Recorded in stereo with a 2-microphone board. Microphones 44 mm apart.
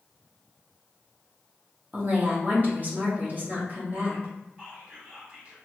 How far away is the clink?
I don't hear a clink.